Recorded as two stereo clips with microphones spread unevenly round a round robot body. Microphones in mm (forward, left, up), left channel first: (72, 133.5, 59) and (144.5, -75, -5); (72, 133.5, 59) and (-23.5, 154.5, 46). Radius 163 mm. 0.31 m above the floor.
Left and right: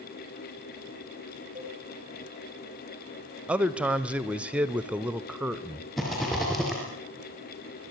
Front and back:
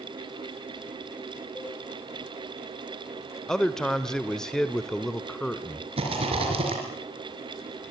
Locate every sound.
1.6 s a cowbell: 115° right, 3 m
3.5 s a man speaking: 105° right, 1.0 m
6.0 s a rattle: 160° right, 4 m